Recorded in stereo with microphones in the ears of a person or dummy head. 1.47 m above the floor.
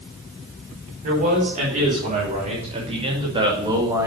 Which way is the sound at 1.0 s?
45° right (ahead or behind).